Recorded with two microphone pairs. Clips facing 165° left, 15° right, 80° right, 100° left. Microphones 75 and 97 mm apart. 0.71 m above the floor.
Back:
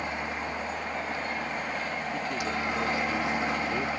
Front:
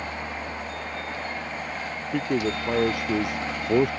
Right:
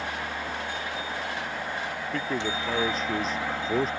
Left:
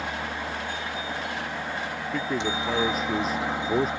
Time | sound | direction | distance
0.0 | a helicopter | 130° left | ?
2.1 | a man speaking | 15° left | ?